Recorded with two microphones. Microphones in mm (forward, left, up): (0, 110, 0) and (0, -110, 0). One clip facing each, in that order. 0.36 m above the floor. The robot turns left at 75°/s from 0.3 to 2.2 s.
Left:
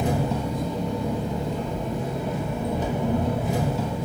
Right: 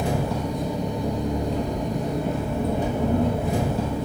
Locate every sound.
0.0 s an engine running: 20° left, 0.7 m; by 4.0 s 120° right, 0.7 m